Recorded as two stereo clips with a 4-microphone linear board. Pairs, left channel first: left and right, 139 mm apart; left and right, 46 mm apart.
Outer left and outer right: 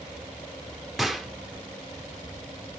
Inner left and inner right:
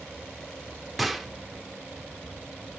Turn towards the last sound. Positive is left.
turn(degrees=0)  # may be behind; listen again after turning